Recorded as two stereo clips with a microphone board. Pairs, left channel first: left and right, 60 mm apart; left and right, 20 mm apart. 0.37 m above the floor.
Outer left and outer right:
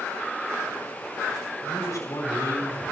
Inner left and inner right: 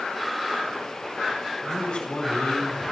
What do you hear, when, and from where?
1.6 s a man speaking: 60° left (ahead or behind), 3 m; by 2.8 s 70° left (ahead or behind), 4 m